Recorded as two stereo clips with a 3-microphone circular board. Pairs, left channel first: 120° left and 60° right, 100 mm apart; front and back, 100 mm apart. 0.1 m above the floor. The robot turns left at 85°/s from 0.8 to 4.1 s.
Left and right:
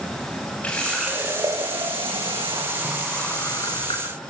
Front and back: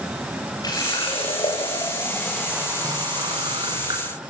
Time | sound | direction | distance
0.6 | a running tap | 45° left | 8 m